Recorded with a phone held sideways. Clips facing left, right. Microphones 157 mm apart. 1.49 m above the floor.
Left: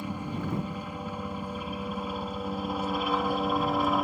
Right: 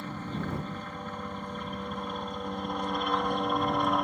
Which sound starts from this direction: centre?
A helicopter, at 0.0 s.